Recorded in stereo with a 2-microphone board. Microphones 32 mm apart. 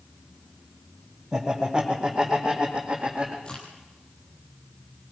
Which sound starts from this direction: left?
A crack, at 3.5 s.